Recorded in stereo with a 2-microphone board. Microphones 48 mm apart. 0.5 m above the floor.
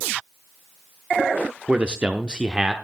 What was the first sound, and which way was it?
A man speaking, 25° right (ahead or behind).